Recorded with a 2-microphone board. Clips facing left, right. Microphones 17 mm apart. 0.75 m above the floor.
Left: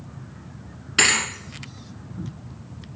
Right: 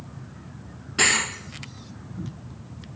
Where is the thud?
65° left (ahead or behind), 1.3 m.